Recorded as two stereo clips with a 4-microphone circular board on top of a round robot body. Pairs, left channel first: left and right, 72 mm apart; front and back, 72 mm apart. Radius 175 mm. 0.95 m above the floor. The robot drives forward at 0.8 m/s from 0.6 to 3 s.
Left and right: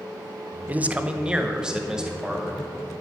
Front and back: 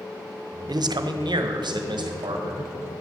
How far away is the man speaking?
About 0.6 m.